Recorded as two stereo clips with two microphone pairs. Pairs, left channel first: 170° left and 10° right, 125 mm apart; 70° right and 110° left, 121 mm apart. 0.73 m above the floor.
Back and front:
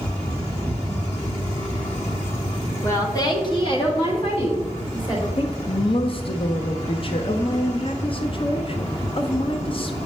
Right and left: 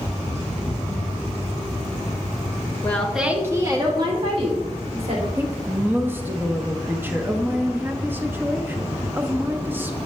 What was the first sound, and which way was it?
A woman speaking, 135° right.